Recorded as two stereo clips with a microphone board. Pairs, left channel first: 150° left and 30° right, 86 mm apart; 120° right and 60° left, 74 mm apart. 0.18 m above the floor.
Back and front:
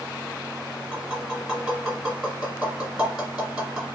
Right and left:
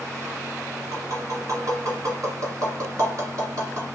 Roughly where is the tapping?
Ahead left.